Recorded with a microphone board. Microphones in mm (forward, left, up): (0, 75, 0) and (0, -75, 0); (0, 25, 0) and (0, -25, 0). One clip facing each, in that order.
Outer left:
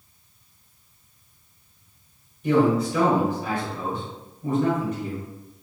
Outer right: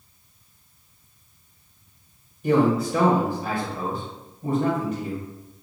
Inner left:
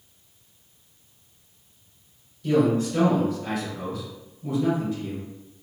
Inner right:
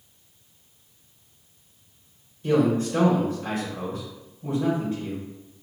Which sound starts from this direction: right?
A man speaking, at 2.4 s.